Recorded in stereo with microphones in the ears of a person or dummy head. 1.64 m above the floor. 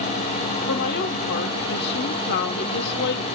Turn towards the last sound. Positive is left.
turn(degrees=55)  # may be behind; listen again after turning